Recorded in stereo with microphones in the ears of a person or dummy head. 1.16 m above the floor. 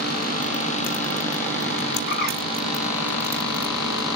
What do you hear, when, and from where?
2.1 s a bird: 50° left (ahead or behind), 2 m